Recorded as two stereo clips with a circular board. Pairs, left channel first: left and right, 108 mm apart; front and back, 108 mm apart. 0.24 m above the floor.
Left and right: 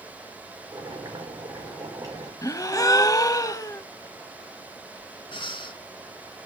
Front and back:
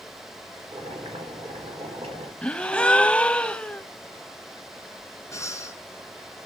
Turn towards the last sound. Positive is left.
turn(degrees=60)